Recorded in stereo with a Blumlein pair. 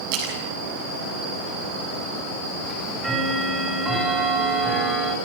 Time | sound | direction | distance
0.1 | a splash | 45° right | 8 m
2.6 | ticking | 5° right | 7 m